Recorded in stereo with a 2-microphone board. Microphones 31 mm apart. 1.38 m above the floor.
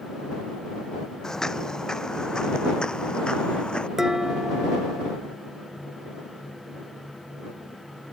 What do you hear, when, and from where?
1.2 s footsteps: 20° left (ahead or behind); by 3.9 s 35° left (ahead or behind)
4.0 s dishes clattering: 10° right (ahead or behind)